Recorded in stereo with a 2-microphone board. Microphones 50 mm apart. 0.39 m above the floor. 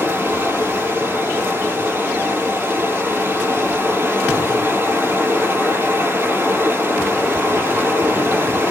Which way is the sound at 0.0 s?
40° right (ahead or behind).